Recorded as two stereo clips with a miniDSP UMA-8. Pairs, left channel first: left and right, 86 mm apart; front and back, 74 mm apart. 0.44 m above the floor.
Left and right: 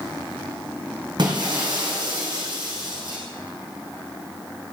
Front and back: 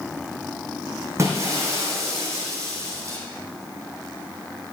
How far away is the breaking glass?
About 3.5 m.